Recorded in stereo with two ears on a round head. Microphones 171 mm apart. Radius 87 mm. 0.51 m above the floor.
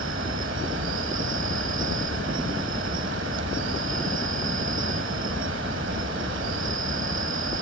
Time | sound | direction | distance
0.0 | an insect | 70° right (ahead or behind) | ?